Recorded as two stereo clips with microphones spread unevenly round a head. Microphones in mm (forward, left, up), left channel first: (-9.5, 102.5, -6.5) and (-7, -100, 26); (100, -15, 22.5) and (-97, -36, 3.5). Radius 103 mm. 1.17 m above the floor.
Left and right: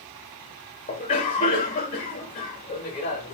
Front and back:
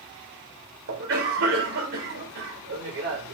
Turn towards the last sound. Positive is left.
turn(degrees=155)